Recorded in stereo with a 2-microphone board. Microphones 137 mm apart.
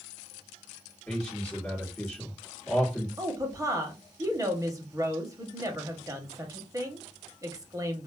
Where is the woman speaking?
25° right (ahead or behind), 0.9 m.